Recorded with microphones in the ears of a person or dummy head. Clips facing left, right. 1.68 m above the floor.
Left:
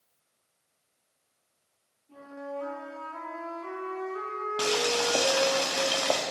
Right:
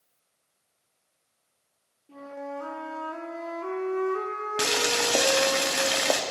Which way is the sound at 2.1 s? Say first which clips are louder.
Right 2 dB; 70° right (ahead or behind).